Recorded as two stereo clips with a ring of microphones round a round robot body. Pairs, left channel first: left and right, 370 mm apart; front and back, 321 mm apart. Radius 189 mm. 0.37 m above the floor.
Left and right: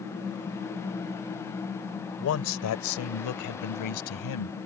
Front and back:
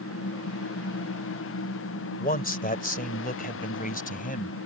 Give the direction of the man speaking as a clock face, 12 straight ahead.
10 o'clock.